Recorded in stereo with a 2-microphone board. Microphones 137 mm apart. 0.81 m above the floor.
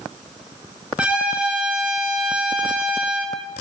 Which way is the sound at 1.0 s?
5° right (ahead or behind).